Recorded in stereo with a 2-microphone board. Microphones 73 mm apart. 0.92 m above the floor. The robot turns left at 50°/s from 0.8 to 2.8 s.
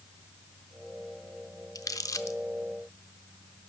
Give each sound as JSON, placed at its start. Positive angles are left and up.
{"t": 1.8, "sound": "crumpling", "side_deg": 55, "distance_m": 0.7}